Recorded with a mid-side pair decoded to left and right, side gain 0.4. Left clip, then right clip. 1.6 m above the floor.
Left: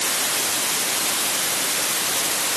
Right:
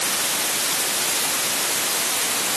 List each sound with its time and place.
Only background noise.